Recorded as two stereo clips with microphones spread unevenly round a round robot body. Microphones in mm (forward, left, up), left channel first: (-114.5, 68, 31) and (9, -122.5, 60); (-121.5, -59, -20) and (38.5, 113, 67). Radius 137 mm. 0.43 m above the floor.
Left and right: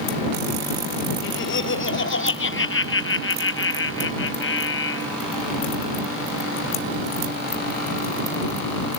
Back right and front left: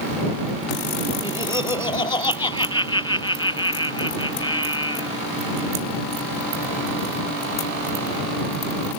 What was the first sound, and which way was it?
Laughter, 155° left.